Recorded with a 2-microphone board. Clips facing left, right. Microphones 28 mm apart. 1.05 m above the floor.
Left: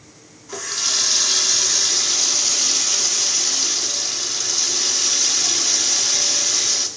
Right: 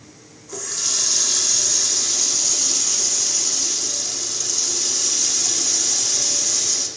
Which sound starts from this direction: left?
A running tap, at 0.5 s.